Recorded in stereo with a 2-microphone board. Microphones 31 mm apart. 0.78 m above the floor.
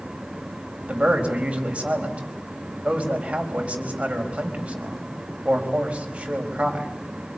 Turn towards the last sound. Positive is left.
turn(degrees=-35)  # may be behind; listen again after turning